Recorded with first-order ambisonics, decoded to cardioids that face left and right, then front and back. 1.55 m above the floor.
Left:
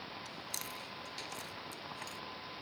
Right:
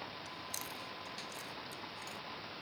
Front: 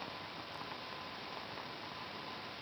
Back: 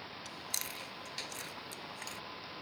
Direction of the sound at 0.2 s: 170° left.